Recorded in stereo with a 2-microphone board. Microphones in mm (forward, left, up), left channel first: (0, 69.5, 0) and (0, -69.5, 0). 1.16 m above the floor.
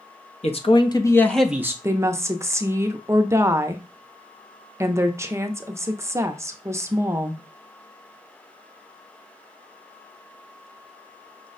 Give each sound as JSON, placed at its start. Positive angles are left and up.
{"t": 0.4, "sound": "a man speaking", "side_deg": 45, "distance_m": 0.8}
{"t": 1.8, "sound": "a woman speaking", "side_deg": -20, "distance_m": 0.5}